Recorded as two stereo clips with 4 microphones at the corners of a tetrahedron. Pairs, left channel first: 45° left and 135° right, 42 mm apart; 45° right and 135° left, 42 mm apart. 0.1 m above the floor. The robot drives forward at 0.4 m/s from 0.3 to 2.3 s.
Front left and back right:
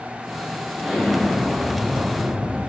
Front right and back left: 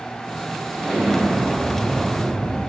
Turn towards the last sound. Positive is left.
turn(degrees=-140)